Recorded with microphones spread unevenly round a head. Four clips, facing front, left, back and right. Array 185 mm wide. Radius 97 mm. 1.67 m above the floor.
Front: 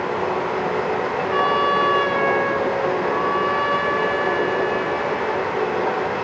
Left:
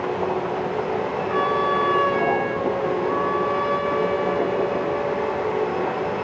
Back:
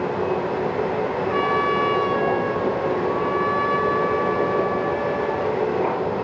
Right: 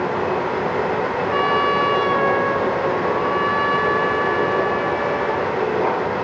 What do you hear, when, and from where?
1.3 s a trumpet: 75° right, 6.5 m